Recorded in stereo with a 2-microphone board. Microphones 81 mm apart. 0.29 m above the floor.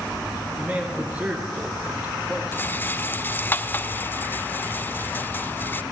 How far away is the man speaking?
About 5.5 m.